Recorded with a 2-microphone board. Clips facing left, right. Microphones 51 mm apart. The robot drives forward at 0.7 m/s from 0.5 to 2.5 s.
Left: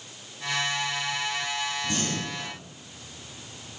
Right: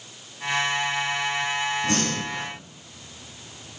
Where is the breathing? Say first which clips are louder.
Right 4 dB; 75° right (ahead or behind), 5.5 m.